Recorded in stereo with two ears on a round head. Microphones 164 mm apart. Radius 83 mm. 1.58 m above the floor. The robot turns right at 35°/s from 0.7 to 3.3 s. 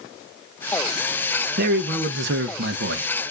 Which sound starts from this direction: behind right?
A man speaking, at 1.6 s.